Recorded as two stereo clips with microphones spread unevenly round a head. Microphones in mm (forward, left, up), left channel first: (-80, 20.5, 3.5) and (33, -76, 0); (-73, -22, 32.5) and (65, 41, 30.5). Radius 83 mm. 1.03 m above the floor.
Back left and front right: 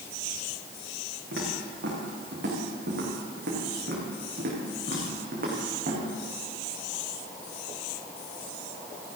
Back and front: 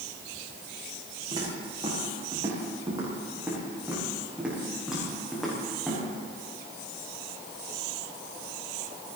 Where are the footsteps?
35° right, 6.5 m; by 6.0 s 70° right, 5.5 m.